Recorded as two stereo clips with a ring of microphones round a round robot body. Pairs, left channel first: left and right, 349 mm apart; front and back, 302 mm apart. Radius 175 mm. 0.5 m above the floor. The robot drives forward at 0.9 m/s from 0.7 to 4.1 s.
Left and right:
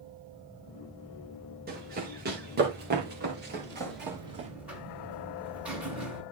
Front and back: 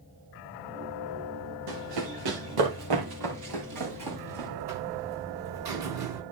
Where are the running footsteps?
155° right, 4.5 m; by 4.5 s 150° right, 5 m.